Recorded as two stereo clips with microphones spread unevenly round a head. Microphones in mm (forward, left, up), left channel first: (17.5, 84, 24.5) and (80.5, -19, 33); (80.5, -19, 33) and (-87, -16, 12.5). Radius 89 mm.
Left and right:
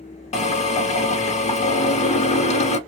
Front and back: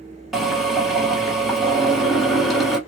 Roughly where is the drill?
Left.